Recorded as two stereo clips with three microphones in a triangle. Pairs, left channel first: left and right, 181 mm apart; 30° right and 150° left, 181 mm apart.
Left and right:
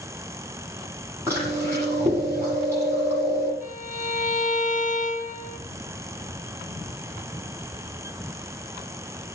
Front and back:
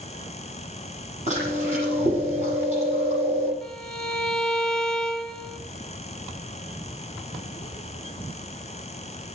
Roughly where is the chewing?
Behind.